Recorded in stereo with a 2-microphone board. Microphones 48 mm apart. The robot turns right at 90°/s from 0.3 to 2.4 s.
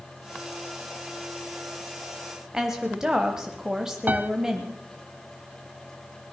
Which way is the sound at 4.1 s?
40° right (ahead or behind).